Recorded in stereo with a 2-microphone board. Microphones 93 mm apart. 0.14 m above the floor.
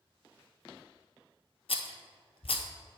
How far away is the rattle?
About 0.7 m.